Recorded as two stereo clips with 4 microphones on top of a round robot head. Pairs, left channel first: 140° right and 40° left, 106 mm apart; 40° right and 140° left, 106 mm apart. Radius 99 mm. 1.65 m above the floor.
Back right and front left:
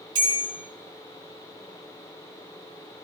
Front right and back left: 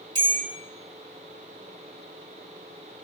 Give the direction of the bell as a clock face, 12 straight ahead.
9 o'clock.